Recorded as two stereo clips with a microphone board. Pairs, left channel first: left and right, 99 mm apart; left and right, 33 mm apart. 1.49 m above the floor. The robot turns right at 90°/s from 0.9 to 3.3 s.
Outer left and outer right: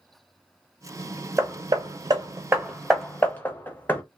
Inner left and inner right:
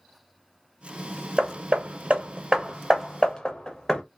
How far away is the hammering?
About 0.7 m.